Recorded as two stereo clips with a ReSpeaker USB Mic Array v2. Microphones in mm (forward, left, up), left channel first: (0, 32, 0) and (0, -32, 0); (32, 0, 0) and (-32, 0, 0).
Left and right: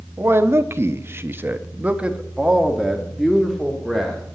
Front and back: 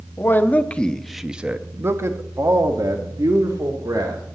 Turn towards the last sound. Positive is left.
turn(degrees=175)